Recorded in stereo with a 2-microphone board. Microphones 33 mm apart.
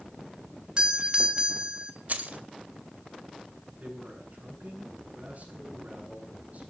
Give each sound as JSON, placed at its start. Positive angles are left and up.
{"t": 0.8, "sound": "a doorbell", "side_deg": -30, "distance_m": 1.6}
{"t": 2.1, "sound": "keys jangling", "side_deg": -60, "distance_m": 1.8}
{"t": 3.8, "sound": "a man speaking", "side_deg": -55, "distance_m": 9.5}